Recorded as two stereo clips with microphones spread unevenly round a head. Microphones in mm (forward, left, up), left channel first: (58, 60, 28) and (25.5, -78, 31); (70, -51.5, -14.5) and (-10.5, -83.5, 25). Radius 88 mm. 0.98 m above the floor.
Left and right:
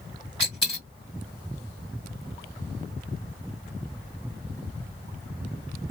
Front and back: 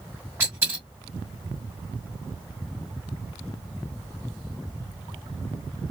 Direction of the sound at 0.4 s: 140° left.